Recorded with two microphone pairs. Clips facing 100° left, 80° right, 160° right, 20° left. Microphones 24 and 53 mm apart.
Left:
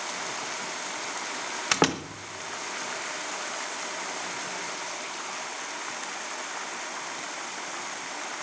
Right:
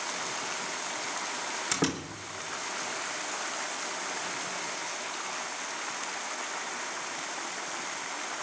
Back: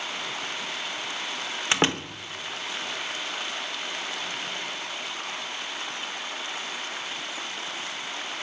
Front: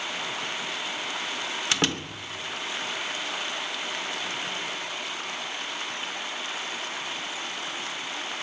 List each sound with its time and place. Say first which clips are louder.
1.7 s a door slam: left 7 dB, back 4 dB; 140° left, 1.3 m